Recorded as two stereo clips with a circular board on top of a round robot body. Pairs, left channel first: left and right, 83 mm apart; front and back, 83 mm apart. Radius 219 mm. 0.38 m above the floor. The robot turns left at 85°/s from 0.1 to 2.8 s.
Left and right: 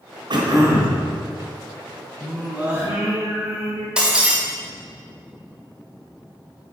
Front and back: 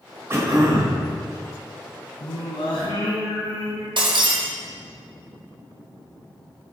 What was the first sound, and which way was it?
Throat clearing, 115° right.